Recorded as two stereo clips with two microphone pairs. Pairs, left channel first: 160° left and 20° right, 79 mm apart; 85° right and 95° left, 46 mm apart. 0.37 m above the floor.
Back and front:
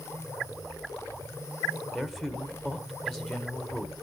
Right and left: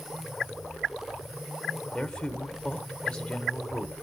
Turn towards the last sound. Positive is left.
turn(degrees=-110)